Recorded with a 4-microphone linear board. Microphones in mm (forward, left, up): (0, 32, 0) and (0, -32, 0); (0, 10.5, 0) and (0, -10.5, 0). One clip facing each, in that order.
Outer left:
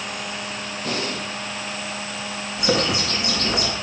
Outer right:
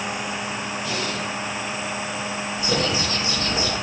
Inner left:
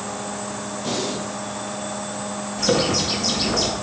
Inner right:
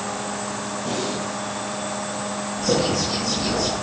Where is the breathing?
55° left (ahead or behind), 5.5 m.